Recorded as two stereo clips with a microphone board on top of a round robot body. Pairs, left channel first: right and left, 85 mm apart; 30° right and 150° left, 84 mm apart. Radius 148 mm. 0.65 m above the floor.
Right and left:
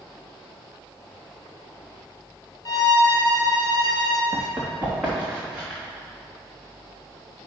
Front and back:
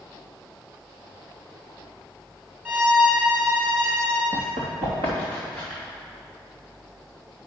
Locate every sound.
2.6 s a violin: 135° right, 1.9 m
4.3 s running footsteps: 170° left, 2 m; by 5.8 s 175° left, 3.5 m